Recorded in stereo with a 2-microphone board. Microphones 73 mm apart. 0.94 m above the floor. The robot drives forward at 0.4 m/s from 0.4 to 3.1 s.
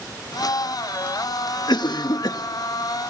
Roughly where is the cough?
Left.